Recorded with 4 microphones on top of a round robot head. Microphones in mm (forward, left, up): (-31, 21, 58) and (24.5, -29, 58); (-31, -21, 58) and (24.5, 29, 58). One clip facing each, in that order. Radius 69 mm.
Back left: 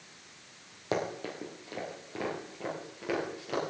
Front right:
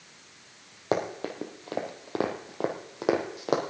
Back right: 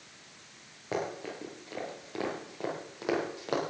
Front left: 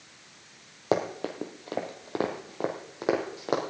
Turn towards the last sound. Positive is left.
turn(degrees=-25)